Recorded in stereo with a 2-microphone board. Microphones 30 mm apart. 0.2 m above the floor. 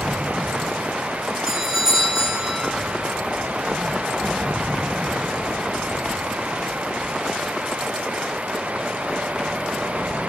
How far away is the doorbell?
About 1.5 m.